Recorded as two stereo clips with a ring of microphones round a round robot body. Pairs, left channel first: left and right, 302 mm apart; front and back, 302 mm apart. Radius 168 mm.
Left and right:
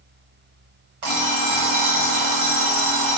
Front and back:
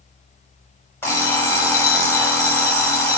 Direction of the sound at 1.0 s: 80° right.